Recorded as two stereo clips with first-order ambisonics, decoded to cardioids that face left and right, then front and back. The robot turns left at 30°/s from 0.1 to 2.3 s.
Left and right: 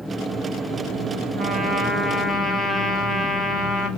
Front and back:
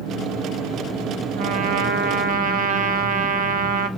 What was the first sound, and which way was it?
A trumpet, 155° right.